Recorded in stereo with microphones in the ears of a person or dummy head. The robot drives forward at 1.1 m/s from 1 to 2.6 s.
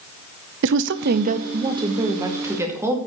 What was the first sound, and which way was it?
A woman speaking, 60° right (ahead or behind).